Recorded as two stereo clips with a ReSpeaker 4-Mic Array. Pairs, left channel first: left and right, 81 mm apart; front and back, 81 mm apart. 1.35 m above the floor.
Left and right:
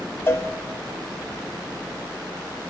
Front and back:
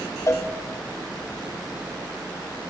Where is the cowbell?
40° left, 0.5 m.